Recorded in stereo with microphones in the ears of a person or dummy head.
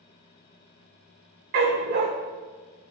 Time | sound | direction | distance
1.5 | a dog barking | 45° right (ahead or behind) | 1.1 m